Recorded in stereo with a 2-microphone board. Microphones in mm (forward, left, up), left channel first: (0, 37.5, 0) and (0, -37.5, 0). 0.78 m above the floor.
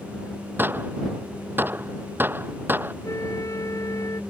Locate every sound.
0.6 s a gunshot: 25° right (ahead or behind)
3.0 s a flute: 45° left (ahead or behind)